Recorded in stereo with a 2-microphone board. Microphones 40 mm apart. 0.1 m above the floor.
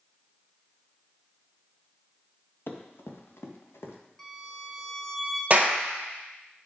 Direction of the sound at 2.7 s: 65° left (ahead or behind).